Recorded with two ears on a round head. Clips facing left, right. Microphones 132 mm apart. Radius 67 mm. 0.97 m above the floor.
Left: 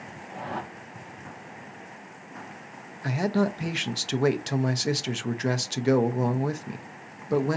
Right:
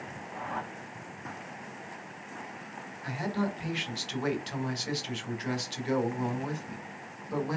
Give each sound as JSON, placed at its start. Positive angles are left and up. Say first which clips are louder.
{"t": 0.3, "sound": "a whoosh", "louder": "left 3 dB", "side_deg": 40, "distance_m": 0.6}
{"t": 3.0, "sound": "a man speaking", "louder": "left 7 dB", "side_deg": 65, "distance_m": 0.6}